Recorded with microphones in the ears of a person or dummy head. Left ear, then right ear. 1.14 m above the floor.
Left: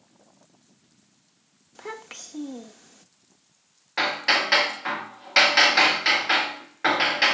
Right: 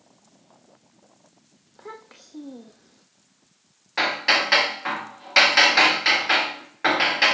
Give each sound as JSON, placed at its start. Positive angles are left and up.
{"t": 1.8, "sound": "a child speaking", "side_deg": 70, "distance_m": 1.3}
{"t": 4.0, "sound": "hammering", "side_deg": -10, "distance_m": 1.2}